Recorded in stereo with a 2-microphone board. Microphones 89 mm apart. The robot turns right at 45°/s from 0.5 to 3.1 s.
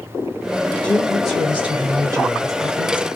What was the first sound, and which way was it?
A woman speaking, 160° left.